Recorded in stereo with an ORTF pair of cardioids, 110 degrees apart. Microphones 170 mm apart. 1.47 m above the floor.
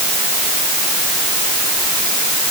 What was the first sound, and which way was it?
Only background noise.